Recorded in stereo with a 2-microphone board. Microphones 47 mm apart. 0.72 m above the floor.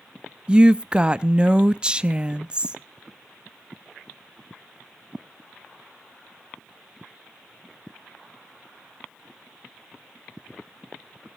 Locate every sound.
0.5 s a woman speaking: 20° right (ahead or behind), 0.6 m